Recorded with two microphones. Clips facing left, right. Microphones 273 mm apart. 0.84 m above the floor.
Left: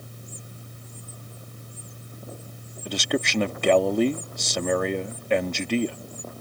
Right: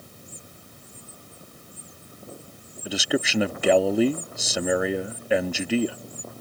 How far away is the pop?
I don't hear a pop.